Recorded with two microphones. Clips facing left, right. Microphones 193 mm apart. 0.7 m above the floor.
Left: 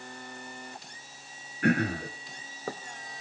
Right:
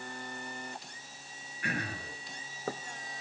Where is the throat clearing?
60° left (ahead or behind), 2.5 m.